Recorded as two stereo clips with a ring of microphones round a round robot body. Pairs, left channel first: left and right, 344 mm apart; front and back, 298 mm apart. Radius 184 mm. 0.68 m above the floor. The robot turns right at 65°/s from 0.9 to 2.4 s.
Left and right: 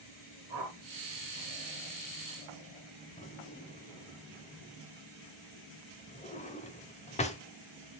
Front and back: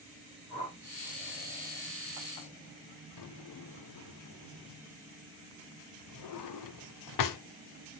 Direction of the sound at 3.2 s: 20° left.